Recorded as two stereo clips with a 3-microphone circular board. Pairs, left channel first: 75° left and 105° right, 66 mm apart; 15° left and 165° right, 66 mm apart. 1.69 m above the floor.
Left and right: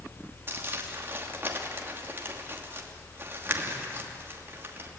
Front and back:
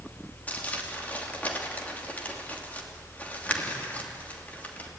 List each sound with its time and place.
0.5 s crumpling: 50° right, 3 m